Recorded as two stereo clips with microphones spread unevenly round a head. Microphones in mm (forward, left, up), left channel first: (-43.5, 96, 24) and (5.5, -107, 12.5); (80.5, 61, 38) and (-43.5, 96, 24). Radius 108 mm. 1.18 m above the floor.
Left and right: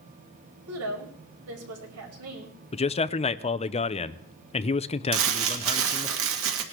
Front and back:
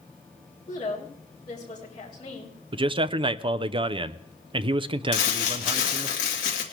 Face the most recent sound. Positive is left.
turn(degrees=-50)